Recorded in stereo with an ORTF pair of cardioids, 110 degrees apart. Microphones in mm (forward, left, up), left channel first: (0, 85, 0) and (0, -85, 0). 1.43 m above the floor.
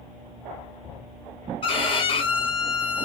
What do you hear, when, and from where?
1.6 s a violin: 35° left, 0.9 m